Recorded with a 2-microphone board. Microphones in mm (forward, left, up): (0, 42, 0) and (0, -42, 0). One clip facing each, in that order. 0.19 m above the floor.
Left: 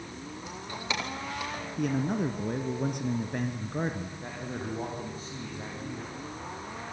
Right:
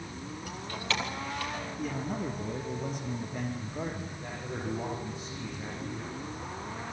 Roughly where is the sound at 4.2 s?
Left.